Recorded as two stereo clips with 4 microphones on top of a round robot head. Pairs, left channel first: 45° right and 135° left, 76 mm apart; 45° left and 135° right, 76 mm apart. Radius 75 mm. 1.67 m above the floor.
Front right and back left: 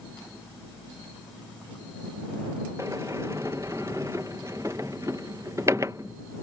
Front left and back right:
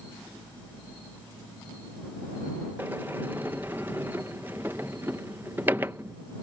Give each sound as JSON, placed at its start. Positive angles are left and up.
{"t": 2.8, "sound": "a sliding door", "azimuth_deg": 170}